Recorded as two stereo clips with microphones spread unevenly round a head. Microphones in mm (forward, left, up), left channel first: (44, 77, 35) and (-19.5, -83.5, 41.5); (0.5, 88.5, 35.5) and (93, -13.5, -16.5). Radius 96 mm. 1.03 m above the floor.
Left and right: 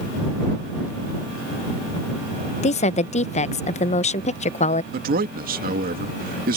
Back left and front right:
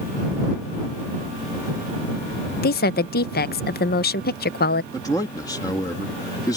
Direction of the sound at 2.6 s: 115° left.